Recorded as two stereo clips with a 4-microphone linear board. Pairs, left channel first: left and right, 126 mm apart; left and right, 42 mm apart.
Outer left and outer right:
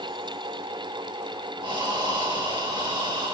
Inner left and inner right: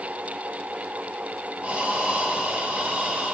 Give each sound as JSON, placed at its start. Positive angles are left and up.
{"t": 1.6, "sound": "breathing", "side_deg": -40, "distance_m": 1.3}